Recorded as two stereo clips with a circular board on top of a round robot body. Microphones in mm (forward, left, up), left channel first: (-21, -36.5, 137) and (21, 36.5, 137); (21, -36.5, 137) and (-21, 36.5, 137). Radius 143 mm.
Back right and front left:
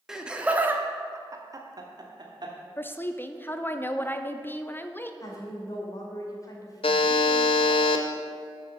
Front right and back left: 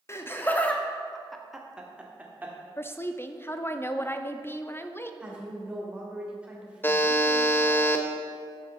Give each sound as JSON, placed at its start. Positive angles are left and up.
{"t": 0.1, "sound": "laughter", "azimuth_deg": -20, "distance_m": 1.4}
{"t": 2.8, "sound": "a woman speaking", "azimuth_deg": -85, "distance_m": 0.8}
{"t": 5.2, "sound": "a woman speaking", "azimuth_deg": -165, "distance_m": 2.5}
{"t": 6.8, "sound": "a buzzer", "azimuth_deg": -125, "distance_m": 0.7}